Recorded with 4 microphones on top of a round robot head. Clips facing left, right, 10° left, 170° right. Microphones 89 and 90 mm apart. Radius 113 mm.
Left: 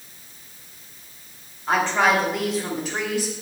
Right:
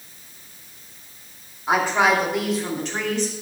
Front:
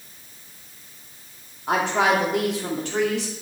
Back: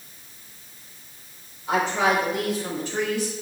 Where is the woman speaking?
10° right, 2.5 m; by 3.4 s 10° left, 3 m.